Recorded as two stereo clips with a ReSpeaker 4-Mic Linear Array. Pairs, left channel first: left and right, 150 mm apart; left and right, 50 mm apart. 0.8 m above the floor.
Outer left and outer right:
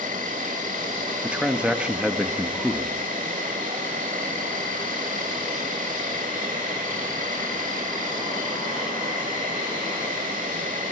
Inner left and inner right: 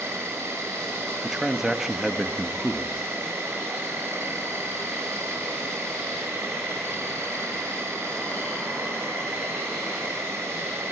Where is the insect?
60° right (ahead or behind), 1.5 m.